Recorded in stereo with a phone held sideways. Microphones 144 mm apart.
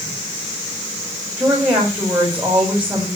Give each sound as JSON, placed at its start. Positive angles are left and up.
{"t": 1.4, "sound": "a woman speaking", "side_deg": -10, "distance_m": 7.5}